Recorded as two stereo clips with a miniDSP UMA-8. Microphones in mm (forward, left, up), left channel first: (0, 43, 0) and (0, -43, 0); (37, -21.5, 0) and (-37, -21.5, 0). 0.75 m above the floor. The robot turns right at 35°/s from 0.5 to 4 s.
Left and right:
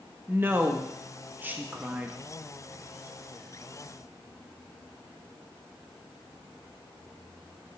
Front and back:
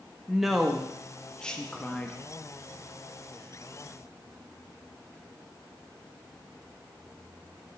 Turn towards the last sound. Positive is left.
turn(degrees=25)